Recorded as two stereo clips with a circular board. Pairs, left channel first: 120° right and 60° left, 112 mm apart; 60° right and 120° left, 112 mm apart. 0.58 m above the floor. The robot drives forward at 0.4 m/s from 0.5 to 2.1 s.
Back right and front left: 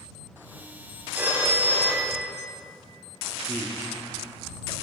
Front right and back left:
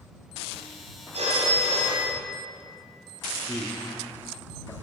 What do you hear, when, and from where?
1.1 s a phone ringing: 135° left, 2.5 m; by 2.3 s 140° left, 3 m
3.5 s a man speaking: 45° right, 1.1 m